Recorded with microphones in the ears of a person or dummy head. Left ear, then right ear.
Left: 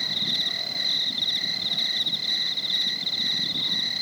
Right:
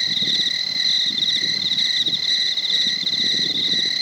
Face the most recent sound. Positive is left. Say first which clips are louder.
# right 5 dB
turn(degrees=-30)  # may be behind; listen again after turning